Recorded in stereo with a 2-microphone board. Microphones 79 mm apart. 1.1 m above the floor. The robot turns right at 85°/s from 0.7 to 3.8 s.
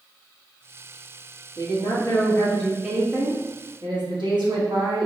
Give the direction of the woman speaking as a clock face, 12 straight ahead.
9 o'clock.